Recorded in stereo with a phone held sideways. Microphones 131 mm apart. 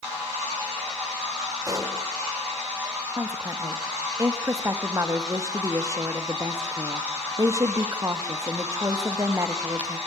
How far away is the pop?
About 2.5 m.